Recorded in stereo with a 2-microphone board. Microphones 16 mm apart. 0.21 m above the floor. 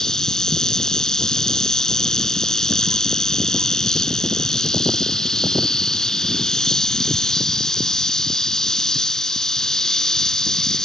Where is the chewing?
I don't hear chewing.